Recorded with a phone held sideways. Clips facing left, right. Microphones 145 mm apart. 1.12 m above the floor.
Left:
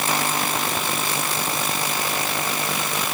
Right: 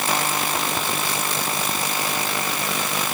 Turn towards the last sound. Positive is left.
No sound to turn to.